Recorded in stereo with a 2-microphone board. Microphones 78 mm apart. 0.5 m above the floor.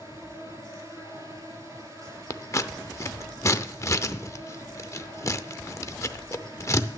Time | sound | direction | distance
0.0 | an insect | 50° right (ahead or behind) | 3.5 m
2.3 | scissors | 40° left (ahead or behind) | 0.6 m